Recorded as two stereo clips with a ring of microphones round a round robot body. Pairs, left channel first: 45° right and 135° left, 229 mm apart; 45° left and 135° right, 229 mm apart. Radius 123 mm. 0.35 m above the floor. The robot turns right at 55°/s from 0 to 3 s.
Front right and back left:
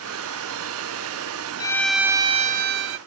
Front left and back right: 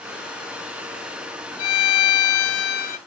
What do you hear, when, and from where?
1.6 s a violin: 30° left; by 3.0 s 105° left